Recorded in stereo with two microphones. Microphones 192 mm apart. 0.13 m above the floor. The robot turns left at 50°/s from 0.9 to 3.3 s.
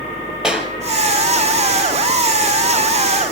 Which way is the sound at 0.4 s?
5° right (ahead or behind).